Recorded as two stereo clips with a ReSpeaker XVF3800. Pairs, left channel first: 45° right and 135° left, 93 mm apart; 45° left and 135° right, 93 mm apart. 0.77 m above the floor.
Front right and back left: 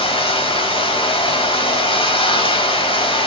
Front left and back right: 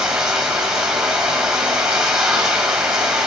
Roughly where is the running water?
Ahead right.